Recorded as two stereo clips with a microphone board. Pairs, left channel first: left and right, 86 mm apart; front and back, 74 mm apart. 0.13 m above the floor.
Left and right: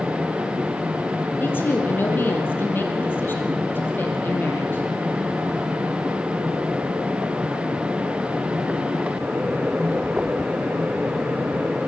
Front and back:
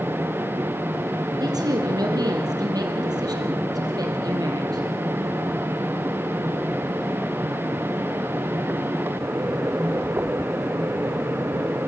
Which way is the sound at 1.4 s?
155° left.